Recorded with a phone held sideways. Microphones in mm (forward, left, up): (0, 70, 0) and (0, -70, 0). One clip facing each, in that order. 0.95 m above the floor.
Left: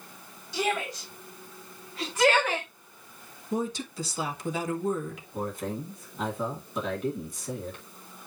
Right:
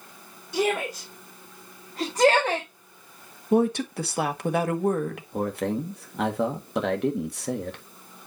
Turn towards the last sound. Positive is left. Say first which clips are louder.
# right 6 dB
turn(degrees=-70)  # may be behind; listen again after turning